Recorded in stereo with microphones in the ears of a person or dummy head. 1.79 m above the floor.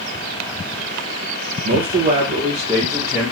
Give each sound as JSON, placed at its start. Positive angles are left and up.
{"t": 1.6, "sound": "a man speaking", "side_deg": -55, "distance_m": 0.6}